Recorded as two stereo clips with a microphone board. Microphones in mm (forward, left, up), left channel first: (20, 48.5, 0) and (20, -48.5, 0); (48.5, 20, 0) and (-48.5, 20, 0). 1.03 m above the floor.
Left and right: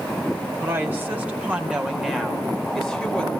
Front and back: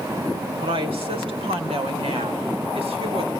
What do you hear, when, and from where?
0.6 s a woman speaking: 155° right, 4 m; by 3.3 s 170° left, 4 m